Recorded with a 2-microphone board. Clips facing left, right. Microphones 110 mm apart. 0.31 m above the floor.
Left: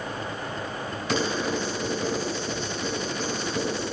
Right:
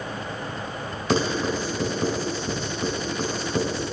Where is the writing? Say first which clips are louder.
Right 3 dB; 30° right (ahead or behind), 2.5 m.